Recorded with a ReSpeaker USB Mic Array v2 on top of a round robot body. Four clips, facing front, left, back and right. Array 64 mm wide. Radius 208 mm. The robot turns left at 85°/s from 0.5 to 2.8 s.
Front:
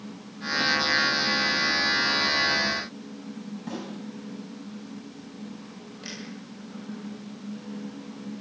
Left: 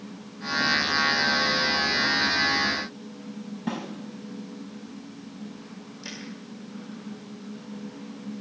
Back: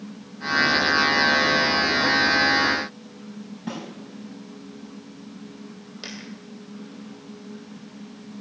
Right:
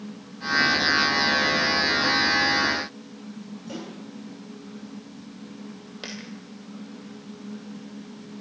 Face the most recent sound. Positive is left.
turn(degrees=-110)